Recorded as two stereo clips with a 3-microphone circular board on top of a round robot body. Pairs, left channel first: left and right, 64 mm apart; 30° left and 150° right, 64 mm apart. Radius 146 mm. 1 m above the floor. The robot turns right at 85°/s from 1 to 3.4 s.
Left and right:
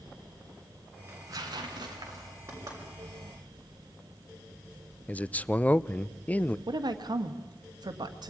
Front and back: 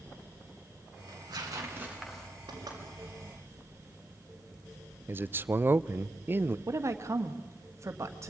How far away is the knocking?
About 6 m.